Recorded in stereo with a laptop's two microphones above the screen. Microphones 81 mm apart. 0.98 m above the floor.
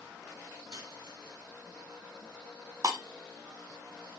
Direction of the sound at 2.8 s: 50° right (ahead or behind).